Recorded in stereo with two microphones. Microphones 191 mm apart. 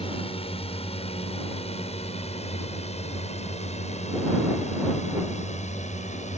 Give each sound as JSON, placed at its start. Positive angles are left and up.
{"t": 0.0, "sound": "a drone", "side_deg": 30}